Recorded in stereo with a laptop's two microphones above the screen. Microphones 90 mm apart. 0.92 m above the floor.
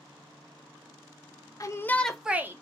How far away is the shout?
About 0.7 m.